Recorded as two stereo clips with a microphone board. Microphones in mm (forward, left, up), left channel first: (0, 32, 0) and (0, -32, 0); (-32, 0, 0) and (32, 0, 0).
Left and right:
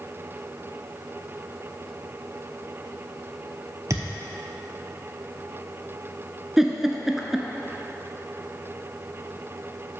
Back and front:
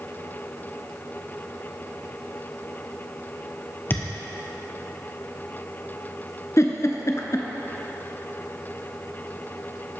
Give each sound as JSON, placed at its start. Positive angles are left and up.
{"t": 3.9, "sound": "a thud", "azimuth_deg": -125, "distance_m": 1.1}
{"t": 6.6, "sound": "a giggle", "azimuth_deg": -175, "distance_m": 0.7}